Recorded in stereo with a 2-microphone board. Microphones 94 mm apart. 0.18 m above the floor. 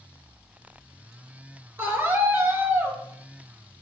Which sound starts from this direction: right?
A scream, at 1.8 s.